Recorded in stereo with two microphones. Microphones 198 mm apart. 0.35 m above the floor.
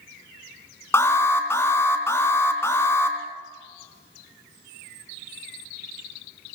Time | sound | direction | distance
0.9 | an alarm | 10° left (ahead or behind) | 3 m